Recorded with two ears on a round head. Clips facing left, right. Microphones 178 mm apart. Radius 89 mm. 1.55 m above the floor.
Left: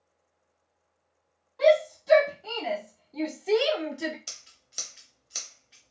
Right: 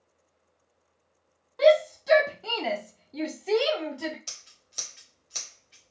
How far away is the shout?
About 1.2 m.